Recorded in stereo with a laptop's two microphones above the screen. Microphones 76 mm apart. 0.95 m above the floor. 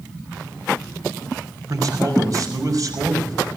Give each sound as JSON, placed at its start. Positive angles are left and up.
{"t": 1.7, "sound": "a man speaking", "side_deg": -50, "distance_m": 5.5}